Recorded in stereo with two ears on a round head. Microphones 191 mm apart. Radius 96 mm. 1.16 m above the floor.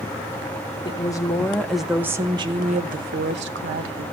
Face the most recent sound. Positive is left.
turn(degrees=-65)  # may be behind; listen again after turning